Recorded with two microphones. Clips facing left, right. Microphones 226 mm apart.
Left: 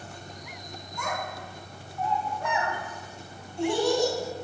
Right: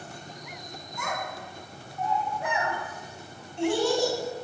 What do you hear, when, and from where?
1.0 s a child speaking: 5° right (ahead or behind), 3.5 m; by 4.2 s 30° right (ahead or behind), 3 m